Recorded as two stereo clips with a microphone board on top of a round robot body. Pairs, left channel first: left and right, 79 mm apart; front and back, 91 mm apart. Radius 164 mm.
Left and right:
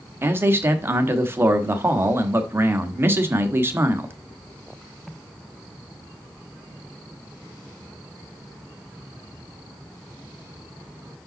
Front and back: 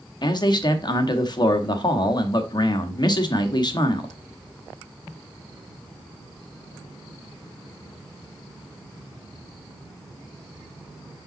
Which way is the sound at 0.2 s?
30° right.